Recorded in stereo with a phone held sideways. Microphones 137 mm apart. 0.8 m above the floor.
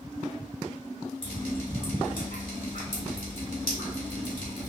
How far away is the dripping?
About 2.0 m.